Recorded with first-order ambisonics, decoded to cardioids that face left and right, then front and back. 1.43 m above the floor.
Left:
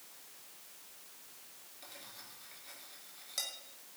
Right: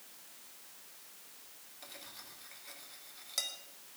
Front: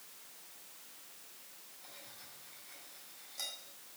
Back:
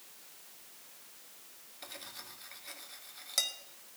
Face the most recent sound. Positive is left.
turn(degrees=-170)